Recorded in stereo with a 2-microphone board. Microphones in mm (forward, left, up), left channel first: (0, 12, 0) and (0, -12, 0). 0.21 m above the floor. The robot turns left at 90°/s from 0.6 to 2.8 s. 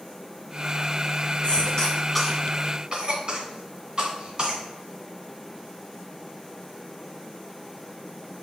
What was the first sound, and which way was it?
A cough, 45° left (ahead or behind).